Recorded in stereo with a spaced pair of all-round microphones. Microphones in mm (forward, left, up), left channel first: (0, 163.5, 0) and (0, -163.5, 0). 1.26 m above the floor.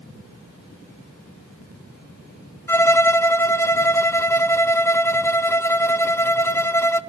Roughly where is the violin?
Centre.